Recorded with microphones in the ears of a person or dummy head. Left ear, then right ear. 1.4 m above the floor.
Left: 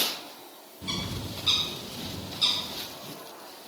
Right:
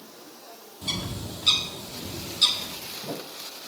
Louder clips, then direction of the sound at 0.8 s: Right 2 dB; 25° right (ahead or behind).